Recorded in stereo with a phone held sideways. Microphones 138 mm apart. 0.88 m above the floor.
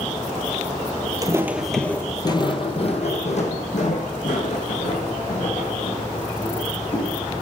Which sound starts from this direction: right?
Footsteps, at 1.2 s.